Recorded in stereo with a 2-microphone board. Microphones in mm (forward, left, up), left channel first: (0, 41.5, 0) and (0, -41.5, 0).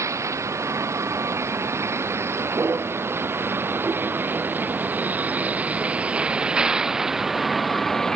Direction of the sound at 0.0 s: 35° right (ahead or behind).